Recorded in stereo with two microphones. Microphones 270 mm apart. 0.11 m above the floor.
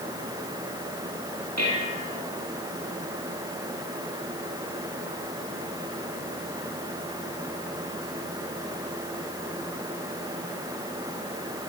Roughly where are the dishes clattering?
Right.